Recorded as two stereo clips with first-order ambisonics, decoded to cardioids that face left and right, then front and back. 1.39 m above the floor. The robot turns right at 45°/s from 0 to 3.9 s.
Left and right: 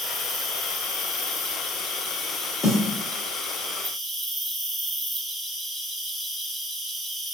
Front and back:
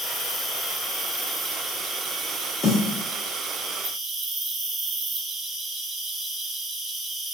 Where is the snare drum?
40° left, 1.0 m; by 2.8 s 45° left, 1.0 m.